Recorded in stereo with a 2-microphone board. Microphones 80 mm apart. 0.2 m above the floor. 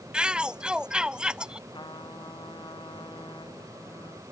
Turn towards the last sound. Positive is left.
turn(degrees=70)  # may be behind; listen again after turning